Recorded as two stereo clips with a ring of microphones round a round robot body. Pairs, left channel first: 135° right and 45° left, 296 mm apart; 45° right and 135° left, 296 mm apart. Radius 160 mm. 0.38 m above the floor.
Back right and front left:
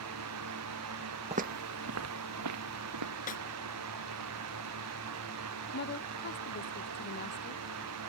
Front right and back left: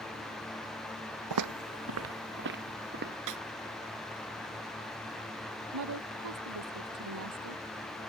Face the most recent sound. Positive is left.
turn(degrees=170)